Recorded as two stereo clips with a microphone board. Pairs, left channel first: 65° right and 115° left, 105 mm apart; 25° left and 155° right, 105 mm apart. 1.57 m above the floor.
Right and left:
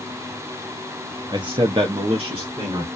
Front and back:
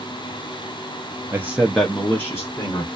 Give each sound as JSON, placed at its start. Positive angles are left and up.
{"t": 1.3, "sound": "a man speaking", "azimuth_deg": 145, "distance_m": 0.5}